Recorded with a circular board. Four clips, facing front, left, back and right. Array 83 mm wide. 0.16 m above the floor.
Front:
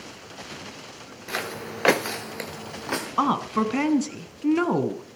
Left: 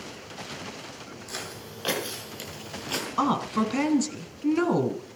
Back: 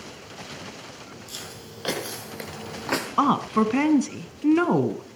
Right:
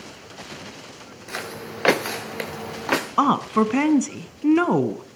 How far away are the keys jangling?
I don't hear keys jangling.